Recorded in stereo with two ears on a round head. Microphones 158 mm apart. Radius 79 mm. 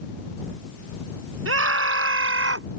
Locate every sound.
1.4 s a scream: 85° right; by 2.7 s 80° right